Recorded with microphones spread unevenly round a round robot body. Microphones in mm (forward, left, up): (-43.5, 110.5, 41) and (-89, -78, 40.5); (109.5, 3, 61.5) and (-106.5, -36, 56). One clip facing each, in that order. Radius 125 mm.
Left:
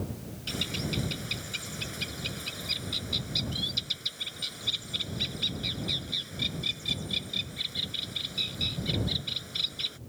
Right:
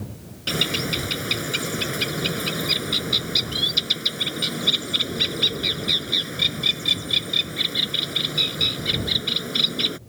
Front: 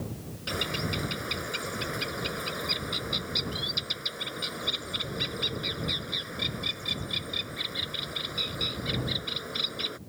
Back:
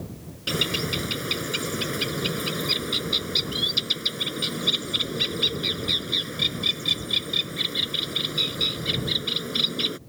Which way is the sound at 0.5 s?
120° right.